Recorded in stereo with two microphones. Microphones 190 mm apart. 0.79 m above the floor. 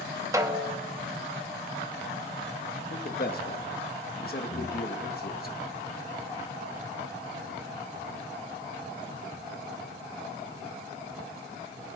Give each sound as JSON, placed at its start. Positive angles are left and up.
{"t": 0.3, "sound": "a snare drum", "side_deg": -15, "distance_m": 0.9}
{"t": 2.9, "sound": "a man speaking", "side_deg": 50, "distance_m": 0.9}
{"t": 4.5, "sound": "breathing", "side_deg": 60, "distance_m": 1.0}